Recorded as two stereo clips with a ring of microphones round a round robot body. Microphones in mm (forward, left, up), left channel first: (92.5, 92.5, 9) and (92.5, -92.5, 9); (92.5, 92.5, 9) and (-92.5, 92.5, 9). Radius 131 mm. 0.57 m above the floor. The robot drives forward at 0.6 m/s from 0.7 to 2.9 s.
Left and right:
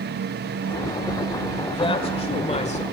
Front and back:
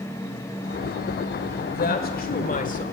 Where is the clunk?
No clunk in this recording.